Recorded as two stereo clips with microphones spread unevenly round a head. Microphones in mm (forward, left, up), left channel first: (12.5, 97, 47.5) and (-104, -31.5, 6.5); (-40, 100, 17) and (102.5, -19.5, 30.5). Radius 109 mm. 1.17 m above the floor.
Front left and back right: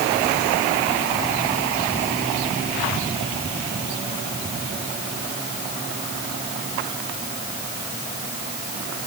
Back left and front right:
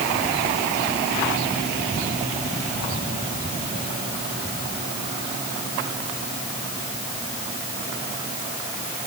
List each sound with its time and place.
Only background noise.